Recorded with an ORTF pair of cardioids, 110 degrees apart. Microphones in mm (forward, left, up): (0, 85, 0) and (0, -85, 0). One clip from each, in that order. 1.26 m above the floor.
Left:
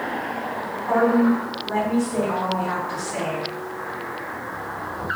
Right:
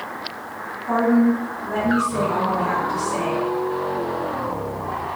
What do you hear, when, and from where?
0.9 s a woman speaking: 5° right, 1.9 m